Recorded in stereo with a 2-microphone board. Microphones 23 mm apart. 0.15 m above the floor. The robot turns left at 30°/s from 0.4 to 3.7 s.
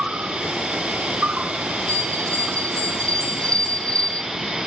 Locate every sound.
0.0 s an insect: 60° right, 1.1 m; by 4.7 s 155° right, 1.1 m
1.9 s a bell: 80° left, 5 m; by 4.2 s 25° left, 5 m